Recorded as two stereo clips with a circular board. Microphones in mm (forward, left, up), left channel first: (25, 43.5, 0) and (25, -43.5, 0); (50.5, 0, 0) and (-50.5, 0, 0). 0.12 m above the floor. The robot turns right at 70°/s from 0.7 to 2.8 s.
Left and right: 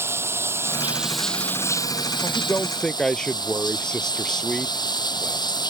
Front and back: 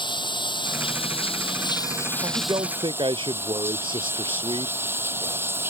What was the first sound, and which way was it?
Running water, 30° right.